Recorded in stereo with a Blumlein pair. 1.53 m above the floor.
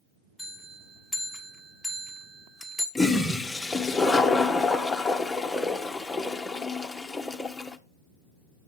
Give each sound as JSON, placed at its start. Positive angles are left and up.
{"t": 0.4, "sound": "a bell", "azimuth_deg": -10, "distance_m": 1.3}
{"t": 3.0, "sound": "a toilet flushing", "azimuth_deg": 5, "distance_m": 0.8}